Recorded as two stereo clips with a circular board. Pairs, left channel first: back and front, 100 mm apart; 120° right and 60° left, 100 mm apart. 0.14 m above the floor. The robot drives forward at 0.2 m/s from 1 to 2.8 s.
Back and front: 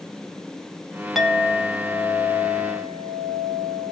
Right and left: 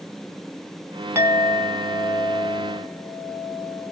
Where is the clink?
85° left, 0.6 m; by 3.9 s 135° left, 0.7 m.